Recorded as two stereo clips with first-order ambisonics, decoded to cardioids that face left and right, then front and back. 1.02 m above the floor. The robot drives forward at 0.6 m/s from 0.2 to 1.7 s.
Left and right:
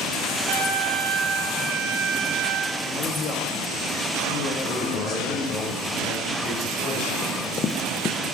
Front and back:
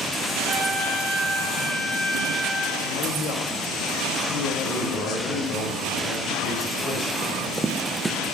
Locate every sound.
0.5 s a trumpet: 95° right, 3.5 m; by 2.7 s 105° right, 3.5 m
2.8 s a woman speaking: 40° left, 1.8 m
4.6 s a man speaking: 40° left, 6 m
7.2 s running footsteps: 115° left, 1.1 m